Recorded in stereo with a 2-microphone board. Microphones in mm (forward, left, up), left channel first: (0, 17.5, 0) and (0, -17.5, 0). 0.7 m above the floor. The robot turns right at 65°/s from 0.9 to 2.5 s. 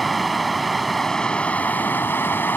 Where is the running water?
Straight ahead; by 2.6 s 105° left.